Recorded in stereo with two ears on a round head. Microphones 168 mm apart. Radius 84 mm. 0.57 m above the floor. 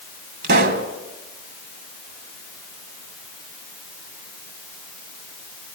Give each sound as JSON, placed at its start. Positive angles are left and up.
{"t": 0.4, "sound": "a pop", "side_deg": -55, "distance_m": 1.4}